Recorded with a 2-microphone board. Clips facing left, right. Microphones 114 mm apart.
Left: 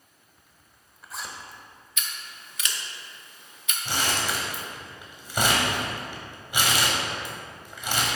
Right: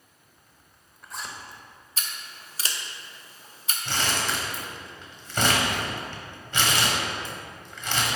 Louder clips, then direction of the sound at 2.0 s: Even; 35° right (ahead or behind).